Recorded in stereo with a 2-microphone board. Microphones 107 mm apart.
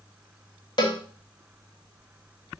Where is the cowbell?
50° left (ahead or behind), 0.8 m.